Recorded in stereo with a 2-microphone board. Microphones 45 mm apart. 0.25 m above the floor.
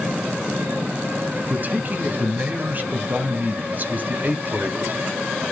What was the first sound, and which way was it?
A man speaking, 40° right (ahead or behind).